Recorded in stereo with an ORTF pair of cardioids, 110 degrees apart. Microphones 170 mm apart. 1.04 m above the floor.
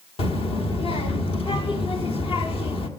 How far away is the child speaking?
About 1.4 m.